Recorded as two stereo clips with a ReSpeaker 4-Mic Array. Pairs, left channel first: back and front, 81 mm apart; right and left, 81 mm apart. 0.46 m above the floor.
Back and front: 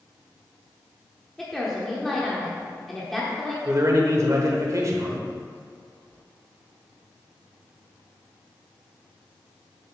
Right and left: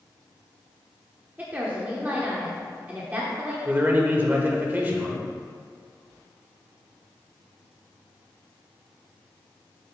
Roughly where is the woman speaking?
Left.